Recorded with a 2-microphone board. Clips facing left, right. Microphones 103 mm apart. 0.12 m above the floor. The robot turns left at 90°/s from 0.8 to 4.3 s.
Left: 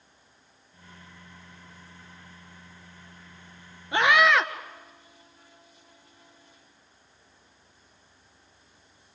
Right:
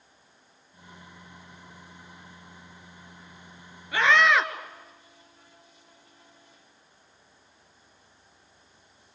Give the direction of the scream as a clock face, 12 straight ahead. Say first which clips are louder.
Left 1 dB; 11 o'clock.